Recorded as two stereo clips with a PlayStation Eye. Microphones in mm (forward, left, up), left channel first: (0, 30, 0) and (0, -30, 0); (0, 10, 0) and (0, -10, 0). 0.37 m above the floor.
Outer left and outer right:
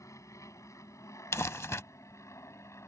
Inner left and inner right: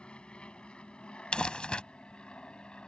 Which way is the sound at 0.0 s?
65° left (ahead or behind).